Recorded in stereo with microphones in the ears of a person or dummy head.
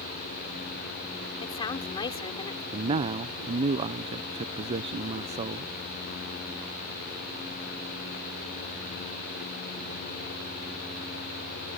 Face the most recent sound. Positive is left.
turn(degrees=-30)  # may be behind; listen again after turning